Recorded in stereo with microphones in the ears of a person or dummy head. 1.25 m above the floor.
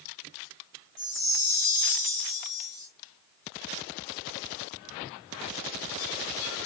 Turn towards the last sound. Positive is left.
turn(degrees=65)  # may be behind; listen again after turning